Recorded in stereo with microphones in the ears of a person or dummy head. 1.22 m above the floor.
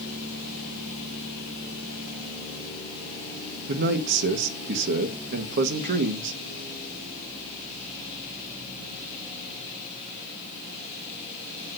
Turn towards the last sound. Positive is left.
turn(degrees=-50)  # may be behind; listen again after turning